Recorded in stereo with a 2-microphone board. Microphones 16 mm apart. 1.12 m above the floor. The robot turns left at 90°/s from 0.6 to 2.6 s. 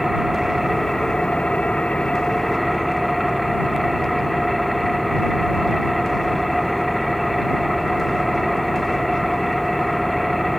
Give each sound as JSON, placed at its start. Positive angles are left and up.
{"t": 0.0, "sound": "an engine running", "azimuth_deg": -170}